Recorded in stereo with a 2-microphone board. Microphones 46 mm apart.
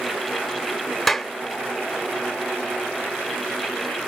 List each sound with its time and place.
1.1 s a clap: 5° left (ahead or behind), 0.8 m